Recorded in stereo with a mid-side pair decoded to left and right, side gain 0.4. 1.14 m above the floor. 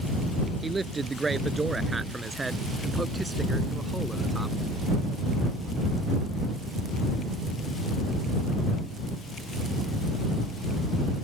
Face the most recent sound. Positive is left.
turn(degrees=-15)